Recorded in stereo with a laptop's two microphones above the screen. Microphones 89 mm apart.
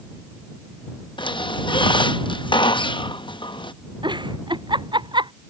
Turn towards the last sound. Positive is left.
turn(degrees=-60)  # may be behind; listen again after turning